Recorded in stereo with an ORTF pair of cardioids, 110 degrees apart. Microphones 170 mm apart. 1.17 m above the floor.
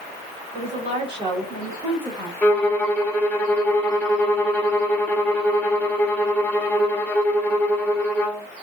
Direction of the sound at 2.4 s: 10° left.